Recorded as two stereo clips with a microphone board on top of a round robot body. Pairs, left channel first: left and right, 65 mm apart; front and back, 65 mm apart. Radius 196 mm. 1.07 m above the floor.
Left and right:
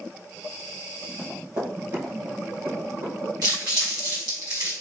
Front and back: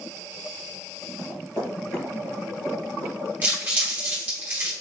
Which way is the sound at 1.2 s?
50° right.